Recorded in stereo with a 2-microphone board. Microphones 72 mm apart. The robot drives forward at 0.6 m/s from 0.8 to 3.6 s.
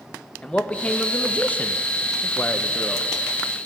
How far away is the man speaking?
About 0.9 m.